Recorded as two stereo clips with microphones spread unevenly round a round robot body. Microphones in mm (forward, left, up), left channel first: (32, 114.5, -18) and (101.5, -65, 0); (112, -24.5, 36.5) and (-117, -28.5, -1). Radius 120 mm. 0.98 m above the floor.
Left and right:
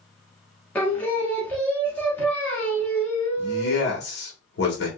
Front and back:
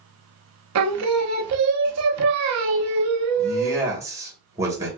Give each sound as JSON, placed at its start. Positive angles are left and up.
{"t": 0.8, "sound": "singing", "azimuth_deg": -165, "distance_m": 0.6}
{"t": 3.4, "sound": "a man speaking", "azimuth_deg": 110, "distance_m": 1.3}